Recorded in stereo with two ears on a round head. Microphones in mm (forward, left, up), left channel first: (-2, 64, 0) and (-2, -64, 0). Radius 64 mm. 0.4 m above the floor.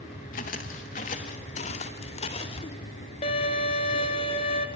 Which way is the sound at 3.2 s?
45° left (ahead or behind).